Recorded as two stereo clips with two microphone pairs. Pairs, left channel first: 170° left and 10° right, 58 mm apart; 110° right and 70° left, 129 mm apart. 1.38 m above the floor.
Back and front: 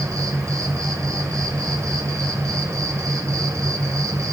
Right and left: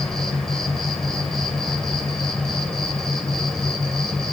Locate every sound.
0.0 s an insect: 25° right, 1.8 m